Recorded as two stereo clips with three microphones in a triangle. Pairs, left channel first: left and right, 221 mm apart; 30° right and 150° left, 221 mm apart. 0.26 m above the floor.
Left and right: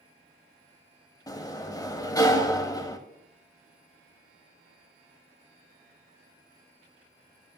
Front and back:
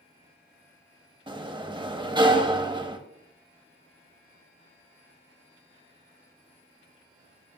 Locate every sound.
1.3 s a sliding door: 135° left, 0.6 m